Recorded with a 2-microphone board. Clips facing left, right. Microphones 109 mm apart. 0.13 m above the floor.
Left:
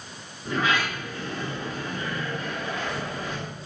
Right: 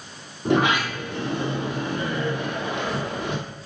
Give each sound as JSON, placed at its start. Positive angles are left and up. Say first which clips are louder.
{"t": 0.5, "sound": "a sliding door", "louder": "right 5 dB", "side_deg": -75, "distance_m": 3.0}